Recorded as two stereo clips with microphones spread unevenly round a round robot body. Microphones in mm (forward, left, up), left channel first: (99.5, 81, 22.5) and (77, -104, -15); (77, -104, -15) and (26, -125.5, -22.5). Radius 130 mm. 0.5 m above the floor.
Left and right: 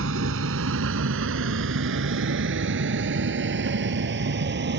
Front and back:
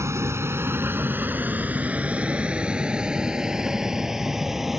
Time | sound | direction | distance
0.0 | a vehicle | 130° right | ?